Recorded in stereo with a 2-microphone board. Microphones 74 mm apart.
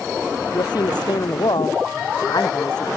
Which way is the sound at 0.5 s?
70° left (ahead or behind).